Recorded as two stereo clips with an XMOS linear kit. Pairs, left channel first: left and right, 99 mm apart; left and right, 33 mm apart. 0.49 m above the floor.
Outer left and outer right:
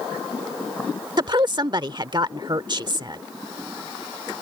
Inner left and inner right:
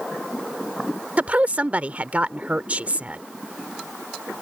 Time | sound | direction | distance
1.2 | a woman speaking | 50° right (ahead or behind) | ?